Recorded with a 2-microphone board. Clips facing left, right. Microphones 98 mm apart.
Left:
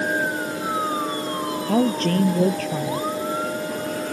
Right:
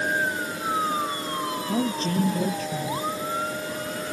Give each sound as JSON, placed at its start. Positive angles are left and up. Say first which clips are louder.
{"t": 1.7, "sound": "a woman speaking", "louder": "left 7 dB", "side_deg": 70}